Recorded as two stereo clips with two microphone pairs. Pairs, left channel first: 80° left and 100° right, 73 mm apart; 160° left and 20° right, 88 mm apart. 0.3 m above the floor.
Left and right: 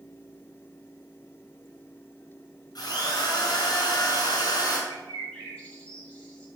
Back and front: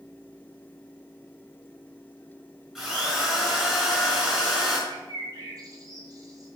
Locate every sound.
2.8 s a drill: 60° left, 4.5 m
4.9 s a bird: 10° left, 2.5 m